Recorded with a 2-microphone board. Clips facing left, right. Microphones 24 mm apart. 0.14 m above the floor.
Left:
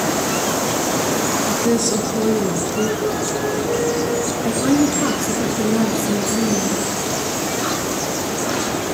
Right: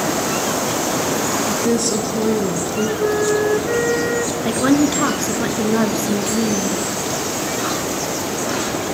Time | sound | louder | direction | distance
1.4 | a woman speaking | even | 15° left (ahead or behind) | 2.5 m
3.0 | a flute | right 4 dB | 50° right (ahead or behind) | 1.6 m
4.5 | a woman speaking | right 1 dB | 40° right (ahead or behind) | 1.5 m